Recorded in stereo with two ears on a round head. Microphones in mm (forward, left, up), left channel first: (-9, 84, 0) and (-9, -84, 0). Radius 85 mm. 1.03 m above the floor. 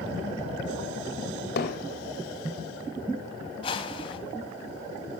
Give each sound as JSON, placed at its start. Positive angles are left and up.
{"t": 1.6, "sound": "hammering", "side_deg": 60, "distance_m": 2.5}
{"t": 3.6, "sound": "a whoosh", "side_deg": 25, "distance_m": 1.6}